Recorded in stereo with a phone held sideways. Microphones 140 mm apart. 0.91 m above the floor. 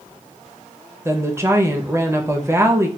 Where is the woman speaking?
20° right (ahead or behind), 0.6 m.